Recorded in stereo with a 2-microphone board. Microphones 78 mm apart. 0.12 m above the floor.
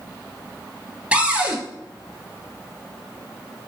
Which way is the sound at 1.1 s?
15° right (ahead or behind).